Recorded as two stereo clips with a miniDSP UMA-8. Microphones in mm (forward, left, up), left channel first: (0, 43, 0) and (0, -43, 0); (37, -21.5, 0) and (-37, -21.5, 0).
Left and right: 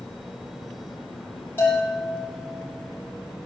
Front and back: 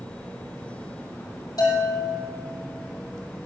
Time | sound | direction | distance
1.6 | a bell | 25° left | 6 m